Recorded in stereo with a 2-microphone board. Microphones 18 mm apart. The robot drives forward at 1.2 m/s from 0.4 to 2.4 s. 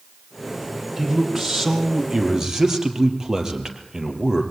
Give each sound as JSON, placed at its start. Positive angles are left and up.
{"t": 1.0, "sound": "a man speaking", "side_deg": -20, "distance_m": 4.5}